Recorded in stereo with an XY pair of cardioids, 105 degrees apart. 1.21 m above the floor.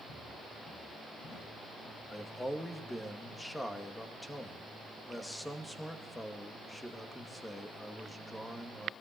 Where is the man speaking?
15° left, 2 m.